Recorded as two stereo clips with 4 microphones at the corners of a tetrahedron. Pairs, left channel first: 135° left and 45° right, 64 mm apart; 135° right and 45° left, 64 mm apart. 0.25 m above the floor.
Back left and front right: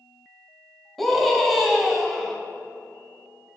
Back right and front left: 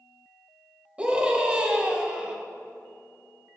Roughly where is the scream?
Ahead left.